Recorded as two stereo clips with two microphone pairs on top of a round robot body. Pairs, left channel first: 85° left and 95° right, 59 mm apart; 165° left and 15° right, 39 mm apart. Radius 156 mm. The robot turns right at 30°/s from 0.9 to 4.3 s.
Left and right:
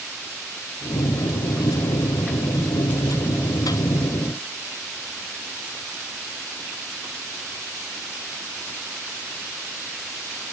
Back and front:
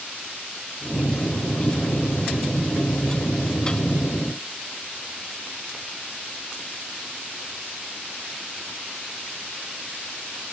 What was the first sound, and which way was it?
Only background noise.